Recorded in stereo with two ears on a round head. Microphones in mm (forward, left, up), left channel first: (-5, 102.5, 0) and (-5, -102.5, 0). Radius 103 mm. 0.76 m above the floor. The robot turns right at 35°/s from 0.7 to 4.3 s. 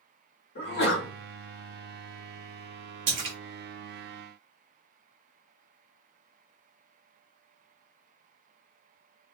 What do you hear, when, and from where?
0.6 s a sneeze: 50° left (ahead or behind), 1.4 m; by 1.1 s 45° left (ahead or behind), 1.4 m
3.1 s a splash: 55° right (ahead or behind), 1.1 m; by 3.4 s 60° right (ahead or behind), 1.1 m